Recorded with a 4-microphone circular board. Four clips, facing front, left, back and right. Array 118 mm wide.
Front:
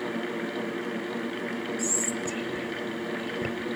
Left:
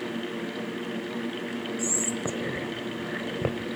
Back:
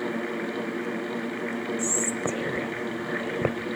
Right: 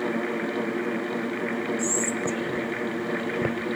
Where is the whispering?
Straight behind, 1.4 m.